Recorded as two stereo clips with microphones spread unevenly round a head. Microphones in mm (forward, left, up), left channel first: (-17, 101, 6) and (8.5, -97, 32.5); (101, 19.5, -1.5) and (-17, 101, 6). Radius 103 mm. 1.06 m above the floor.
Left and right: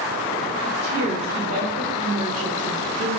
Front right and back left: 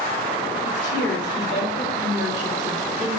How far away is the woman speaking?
About 2.5 m.